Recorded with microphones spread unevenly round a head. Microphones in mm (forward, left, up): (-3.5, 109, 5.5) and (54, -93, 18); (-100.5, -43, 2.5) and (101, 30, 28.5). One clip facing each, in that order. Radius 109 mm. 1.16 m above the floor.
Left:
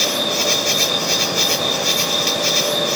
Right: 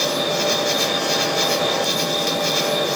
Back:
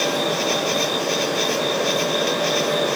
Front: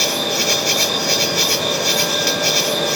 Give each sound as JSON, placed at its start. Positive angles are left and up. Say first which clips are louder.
{"t": 0.0, "sound": "an insect", "louder": "right 1 dB, back 1 dB", "azimuth_deg": 55}